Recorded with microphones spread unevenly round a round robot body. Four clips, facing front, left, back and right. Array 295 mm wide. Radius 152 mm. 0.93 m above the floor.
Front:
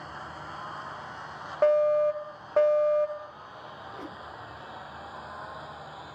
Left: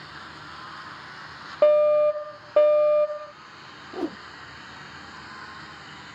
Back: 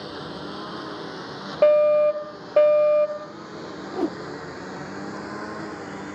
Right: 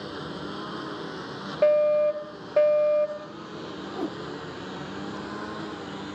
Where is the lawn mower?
140° right; by 6.2 s 150° right.